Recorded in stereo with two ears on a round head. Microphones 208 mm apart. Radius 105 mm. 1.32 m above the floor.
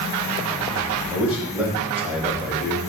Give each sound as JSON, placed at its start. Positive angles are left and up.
{"t": 1.1, "sound": "a man speaking", "side_deg": -5, "distance_m": 6.5}